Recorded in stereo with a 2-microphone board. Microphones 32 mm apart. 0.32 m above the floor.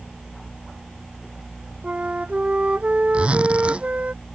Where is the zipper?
35° right (ahead or behind).